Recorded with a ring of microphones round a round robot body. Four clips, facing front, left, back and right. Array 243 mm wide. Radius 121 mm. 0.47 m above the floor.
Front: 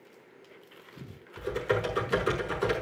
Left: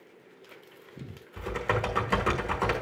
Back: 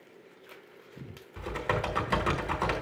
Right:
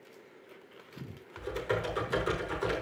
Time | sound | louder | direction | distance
1.4 | typing on a keyboard | left 3 dB, front 2 dB | 125° left | 3.5 m